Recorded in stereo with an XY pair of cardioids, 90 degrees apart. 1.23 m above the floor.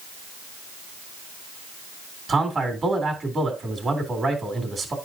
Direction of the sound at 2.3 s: 35° right.